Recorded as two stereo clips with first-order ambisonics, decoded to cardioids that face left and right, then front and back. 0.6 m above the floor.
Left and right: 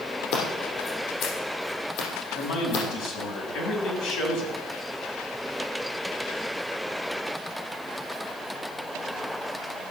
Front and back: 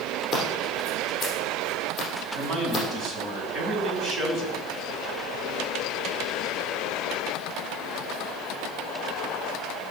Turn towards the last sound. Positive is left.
turn(degrees=110)